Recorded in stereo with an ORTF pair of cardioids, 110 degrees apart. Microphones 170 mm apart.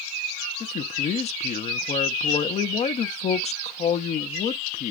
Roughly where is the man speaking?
Ahead left.